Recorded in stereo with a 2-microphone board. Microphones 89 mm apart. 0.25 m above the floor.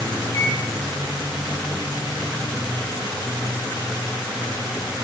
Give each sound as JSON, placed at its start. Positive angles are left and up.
{"t": 0.3, "sound": "a microwave", "side_deg": 40, "distance_m": 1.2}